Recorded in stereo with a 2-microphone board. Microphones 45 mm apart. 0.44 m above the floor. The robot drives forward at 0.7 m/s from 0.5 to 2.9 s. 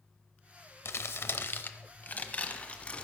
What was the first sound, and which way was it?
Crumpling, 75° left (ahead or behind).